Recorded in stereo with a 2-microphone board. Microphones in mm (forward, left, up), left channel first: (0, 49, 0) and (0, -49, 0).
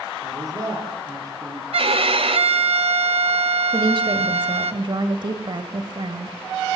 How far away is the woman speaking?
About 1.4 m.